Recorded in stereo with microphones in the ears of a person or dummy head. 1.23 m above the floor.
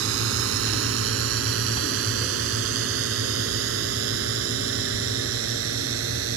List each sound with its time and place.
0.0 s a drone: 75° right (ahead or behind); by 6.4 s 85° right